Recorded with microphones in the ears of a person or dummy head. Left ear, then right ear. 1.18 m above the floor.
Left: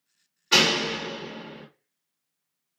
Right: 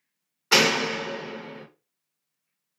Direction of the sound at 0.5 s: 35° right (ahead or behind).